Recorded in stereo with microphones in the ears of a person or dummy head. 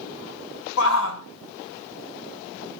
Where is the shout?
80° left, 0.8 m.